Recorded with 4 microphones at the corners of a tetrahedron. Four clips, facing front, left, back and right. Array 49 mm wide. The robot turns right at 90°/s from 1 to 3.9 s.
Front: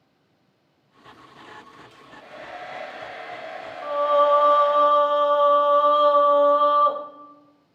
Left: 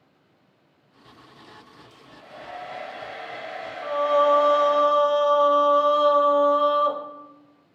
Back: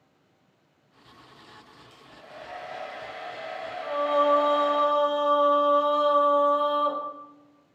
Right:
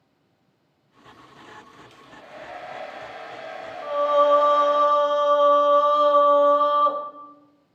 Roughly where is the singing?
Ahead.